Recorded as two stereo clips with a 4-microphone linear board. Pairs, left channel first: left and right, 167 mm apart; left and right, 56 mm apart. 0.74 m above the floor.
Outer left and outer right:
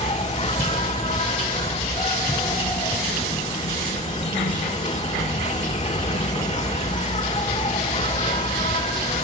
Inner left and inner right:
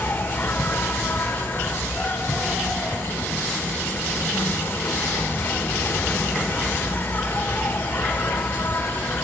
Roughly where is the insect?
Left.